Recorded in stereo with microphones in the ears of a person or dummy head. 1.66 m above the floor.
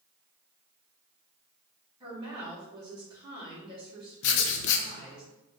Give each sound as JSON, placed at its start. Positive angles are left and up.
{"t": 2.0, "sound": "a woman speaking", "side_deg": -15, "distance_m": 1.4}
{"t": 4.2, "sound": "writing", "side_deg": 75, "distance_m": 0.5}